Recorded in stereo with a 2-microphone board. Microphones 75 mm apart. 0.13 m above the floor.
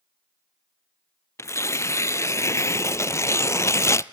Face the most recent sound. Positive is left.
turn(degrees=40)  # may be behind; listen again after turning